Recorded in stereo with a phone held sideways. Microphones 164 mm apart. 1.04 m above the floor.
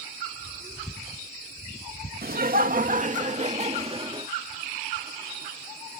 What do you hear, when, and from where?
2.2 s laughter: 65° right (ahead or behind); by 4.3 s 30° right (ahead or behind)